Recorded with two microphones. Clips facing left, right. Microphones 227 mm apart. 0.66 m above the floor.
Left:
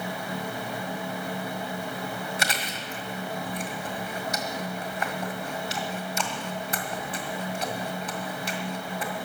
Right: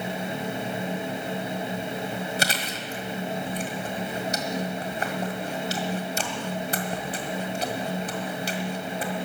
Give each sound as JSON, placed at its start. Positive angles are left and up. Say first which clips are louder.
{"t": 2.4, "sound": "chewing", "louder": "right 3 dB", "side_deg": -35, "distance_m": 1.7}